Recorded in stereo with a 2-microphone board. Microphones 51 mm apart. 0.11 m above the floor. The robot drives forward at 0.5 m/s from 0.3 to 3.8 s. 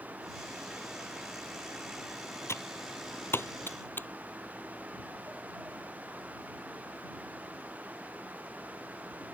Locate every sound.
2.5 s typing on a keyboard: 60° left (ahead or behind); by 4.1 s 45° left (ahead or behind)